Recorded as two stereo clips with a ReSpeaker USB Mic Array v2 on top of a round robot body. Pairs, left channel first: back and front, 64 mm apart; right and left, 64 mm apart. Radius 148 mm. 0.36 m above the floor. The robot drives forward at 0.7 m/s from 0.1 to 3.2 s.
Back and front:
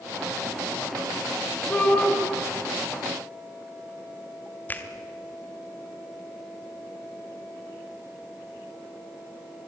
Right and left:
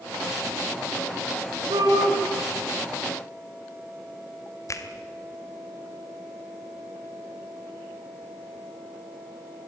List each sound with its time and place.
1.7 s a shout: 105° left, 6.5 m; by 2.1 s 110° left, 6.5 m
4.7 s a finger snap: 120° right, 2 m